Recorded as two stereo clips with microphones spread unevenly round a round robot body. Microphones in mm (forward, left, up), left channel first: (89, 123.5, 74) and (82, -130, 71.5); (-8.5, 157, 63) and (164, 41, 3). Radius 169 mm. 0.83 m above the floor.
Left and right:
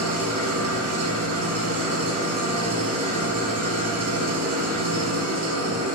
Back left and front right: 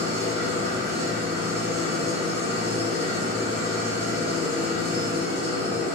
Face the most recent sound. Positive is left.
turn(degrees=-75)